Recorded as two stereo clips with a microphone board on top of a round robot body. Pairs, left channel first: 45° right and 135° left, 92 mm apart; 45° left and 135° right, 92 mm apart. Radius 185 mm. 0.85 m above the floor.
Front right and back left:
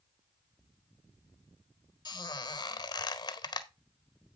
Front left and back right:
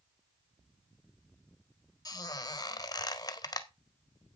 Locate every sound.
2.0 s a squeak: 5° right, 1.6 m